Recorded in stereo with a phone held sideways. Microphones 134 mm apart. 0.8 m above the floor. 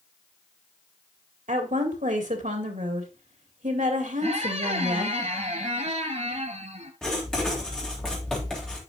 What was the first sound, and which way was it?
A woman speaking, 70° right (ahead or behind).